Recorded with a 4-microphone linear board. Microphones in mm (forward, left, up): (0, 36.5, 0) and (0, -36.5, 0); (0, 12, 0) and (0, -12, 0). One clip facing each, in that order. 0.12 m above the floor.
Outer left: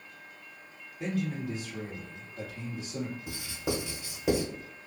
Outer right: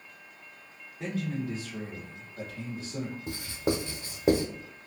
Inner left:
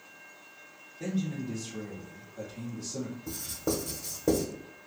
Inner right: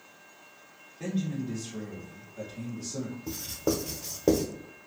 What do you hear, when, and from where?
1.0 s a man speaking: 30° right (ahead or behind), 1.8 m
3.3 s writing: 40° right (ahead or behind), 0.9 m